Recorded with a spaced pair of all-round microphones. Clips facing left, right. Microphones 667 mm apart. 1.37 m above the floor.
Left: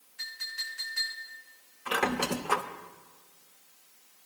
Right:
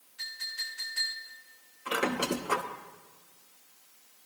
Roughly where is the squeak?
Left.